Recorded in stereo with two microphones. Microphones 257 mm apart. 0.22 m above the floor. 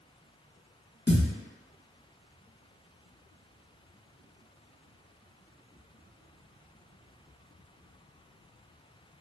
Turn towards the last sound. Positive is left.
turn(degrees=45)  # may be behind; listen again after turning